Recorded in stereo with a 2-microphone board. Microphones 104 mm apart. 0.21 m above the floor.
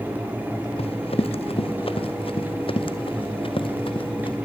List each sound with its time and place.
0.8 s running footsteps: 70° left (ahead or behind), 1.3 m; by 4.4 s 60° left (ahead or behind), 3 m